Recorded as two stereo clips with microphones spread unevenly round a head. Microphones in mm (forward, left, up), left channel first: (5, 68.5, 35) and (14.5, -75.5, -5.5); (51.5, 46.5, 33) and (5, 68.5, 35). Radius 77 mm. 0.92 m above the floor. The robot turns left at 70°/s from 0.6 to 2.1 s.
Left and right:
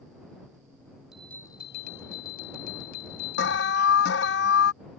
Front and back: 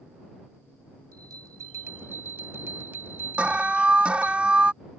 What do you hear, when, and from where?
1.1 s a bell: straight behind; by 4.4 s 110° left
3.4 s an alarm: 85° left